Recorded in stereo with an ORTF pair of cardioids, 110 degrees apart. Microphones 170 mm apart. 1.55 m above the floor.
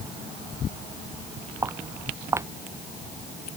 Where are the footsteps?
15° right.